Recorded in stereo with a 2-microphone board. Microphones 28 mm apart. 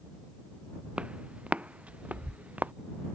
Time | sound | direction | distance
1.0 | footsteps | 50° right (ahead or behind) | ?